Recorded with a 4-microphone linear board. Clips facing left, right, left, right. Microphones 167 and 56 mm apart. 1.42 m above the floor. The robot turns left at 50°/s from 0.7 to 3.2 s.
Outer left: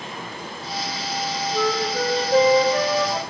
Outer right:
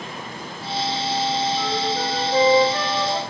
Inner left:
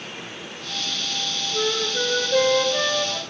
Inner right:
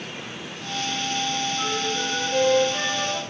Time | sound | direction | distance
1.5 | a flute | 95° left | 0.8 m